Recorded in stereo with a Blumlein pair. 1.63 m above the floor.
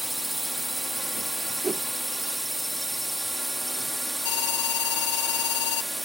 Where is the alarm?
50° left.